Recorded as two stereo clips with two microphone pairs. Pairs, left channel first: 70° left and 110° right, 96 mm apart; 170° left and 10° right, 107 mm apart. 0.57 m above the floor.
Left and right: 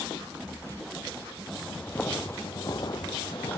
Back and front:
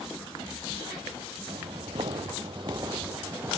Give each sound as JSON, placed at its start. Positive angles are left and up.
{"t": 1.5, "sound": "footsteps", "azimuth_deg": -15, "distance_m": 1.2}